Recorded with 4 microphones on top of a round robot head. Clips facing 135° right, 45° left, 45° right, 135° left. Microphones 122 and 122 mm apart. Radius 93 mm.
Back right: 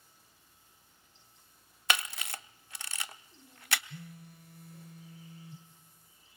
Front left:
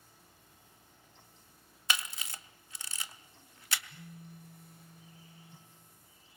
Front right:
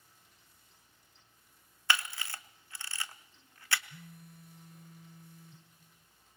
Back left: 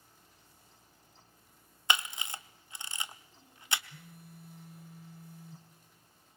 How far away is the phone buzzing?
About 2 m.